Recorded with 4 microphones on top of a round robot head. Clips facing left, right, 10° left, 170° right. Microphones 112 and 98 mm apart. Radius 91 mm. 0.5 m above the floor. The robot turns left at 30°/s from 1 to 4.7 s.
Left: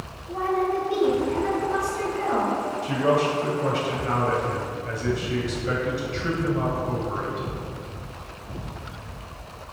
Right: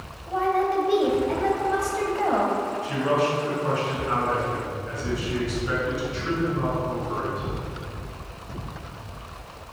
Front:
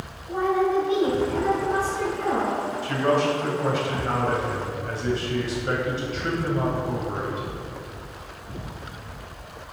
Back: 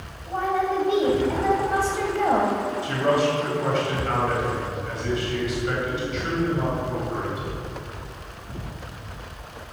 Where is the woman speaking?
110° right, 3 m; by 2.6 s 160° right, 3 m.